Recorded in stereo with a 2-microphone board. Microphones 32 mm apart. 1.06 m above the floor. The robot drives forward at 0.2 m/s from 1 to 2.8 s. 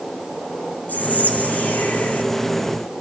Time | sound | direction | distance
0.9 | whispering | 85° left | 5 m